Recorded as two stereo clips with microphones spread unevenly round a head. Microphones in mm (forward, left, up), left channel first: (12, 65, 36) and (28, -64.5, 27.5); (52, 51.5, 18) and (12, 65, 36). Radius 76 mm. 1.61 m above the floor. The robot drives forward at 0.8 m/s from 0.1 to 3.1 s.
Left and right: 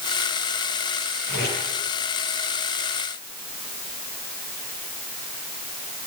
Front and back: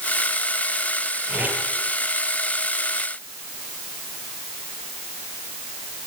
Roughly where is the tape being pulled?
Behind left.